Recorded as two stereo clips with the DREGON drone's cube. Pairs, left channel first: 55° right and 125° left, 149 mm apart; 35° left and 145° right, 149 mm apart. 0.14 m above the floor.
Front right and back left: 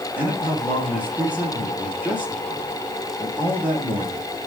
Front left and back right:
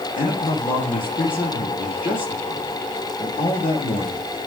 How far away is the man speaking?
About 7 m.